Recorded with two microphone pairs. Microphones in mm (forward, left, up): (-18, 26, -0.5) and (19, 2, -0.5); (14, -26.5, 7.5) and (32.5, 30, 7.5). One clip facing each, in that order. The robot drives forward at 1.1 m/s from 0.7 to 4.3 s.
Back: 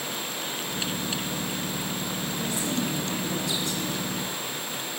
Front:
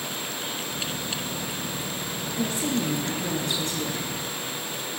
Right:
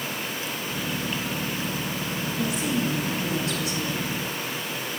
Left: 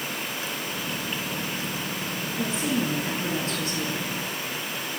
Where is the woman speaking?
15° left, 9.5 m; by 4.1 s 20° left, 8 m.